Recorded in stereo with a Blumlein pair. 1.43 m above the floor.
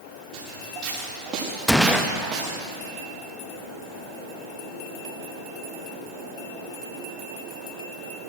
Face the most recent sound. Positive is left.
turn(degrees=5)